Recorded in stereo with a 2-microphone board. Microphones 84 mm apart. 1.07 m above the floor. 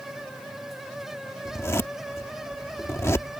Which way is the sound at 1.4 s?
35° left (ahead or behind).